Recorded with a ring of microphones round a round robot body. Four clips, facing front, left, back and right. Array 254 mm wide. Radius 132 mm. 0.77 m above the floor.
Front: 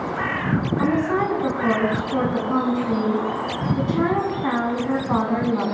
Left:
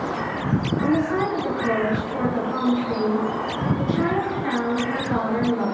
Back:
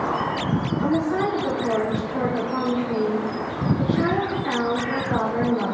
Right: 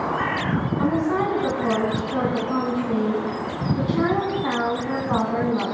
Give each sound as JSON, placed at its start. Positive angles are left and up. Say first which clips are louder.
{"t": 0.8, "sound": "a woman speaking", "louder": "even, front 1 dB", "azimuth_deg": -25, "distance_m": 9.0}